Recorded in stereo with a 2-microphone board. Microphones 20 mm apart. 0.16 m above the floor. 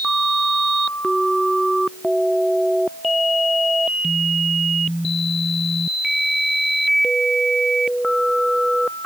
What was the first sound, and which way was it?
Only background noise.